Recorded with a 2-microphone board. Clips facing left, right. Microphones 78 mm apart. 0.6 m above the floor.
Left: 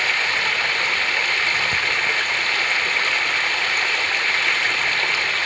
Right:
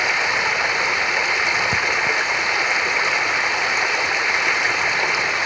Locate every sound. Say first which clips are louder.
0.0 s running water: right 2 dB; 20° right (ahead or behind), 0.9 m